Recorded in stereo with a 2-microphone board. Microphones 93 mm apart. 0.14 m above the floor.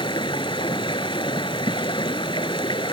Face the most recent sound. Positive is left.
turn(degrees=60)  # may be behind; listen again after turning